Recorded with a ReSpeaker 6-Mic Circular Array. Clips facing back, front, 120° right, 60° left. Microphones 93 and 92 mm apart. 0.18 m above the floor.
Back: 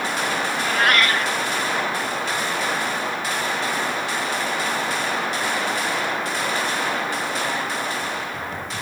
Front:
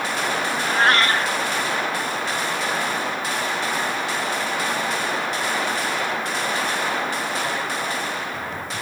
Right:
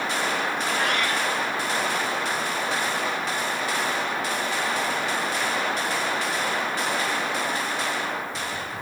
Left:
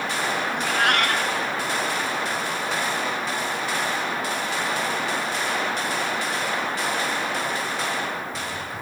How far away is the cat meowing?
About 1.2 m.